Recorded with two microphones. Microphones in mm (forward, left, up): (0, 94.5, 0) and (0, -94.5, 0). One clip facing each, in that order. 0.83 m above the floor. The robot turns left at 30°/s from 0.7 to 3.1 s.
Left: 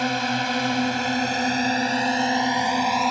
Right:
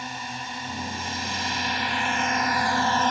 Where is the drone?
80° left; by 3.1 s 10° left.